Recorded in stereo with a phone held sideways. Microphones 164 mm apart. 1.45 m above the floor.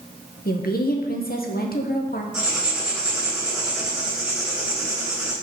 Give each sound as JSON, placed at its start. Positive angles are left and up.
{"t": 0.5, "sound": "a woman speaking", "side_deg": 65, "distance_m": 1.2}
{"t": 2.3, "sound": "writing", "side_deg": -5, "distance_m": 3.0}